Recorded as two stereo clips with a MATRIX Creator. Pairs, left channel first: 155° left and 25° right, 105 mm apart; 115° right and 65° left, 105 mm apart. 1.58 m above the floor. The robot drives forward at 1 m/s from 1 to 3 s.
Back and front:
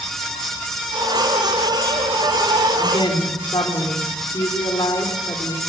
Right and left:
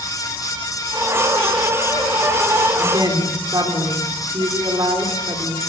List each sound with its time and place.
2.8 s a woman speaking: 115° left, 4 m